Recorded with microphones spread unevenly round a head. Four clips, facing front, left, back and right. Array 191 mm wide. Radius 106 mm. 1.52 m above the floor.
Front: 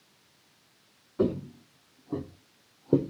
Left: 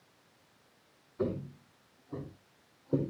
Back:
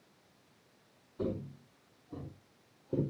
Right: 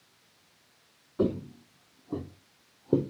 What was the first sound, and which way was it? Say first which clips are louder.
Footsteps: right 6 dB, front 9 dB; 45° right.